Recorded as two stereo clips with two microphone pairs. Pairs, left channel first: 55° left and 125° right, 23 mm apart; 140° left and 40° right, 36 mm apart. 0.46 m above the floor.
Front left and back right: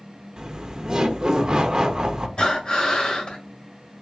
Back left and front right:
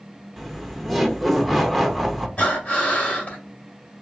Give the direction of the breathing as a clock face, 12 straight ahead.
9 o'clock.